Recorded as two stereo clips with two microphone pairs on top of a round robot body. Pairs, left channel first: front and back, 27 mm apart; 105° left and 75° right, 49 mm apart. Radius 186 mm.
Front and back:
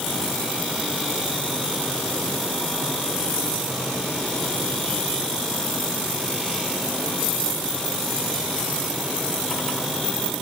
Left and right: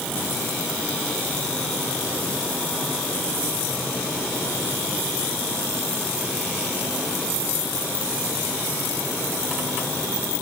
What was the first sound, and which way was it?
Only background noise.